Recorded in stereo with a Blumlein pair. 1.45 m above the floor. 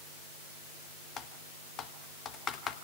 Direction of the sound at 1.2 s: 25° left.